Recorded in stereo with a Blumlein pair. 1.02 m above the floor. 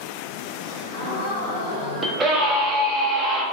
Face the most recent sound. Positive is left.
turn(degrees=-10)